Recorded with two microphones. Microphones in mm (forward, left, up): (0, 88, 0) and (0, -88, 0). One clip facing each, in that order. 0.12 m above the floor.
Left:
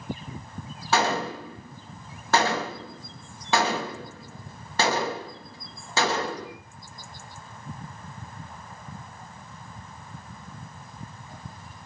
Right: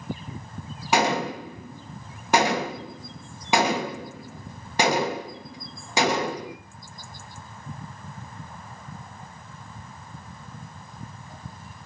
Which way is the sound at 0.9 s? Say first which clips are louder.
Right 2 dB; 15° right (ahead or behind).